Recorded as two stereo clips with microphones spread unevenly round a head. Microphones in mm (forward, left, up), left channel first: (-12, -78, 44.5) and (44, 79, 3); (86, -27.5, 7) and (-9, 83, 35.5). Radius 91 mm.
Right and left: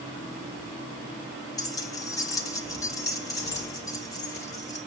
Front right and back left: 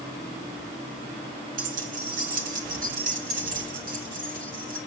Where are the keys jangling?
Straight behind, 1.2 m.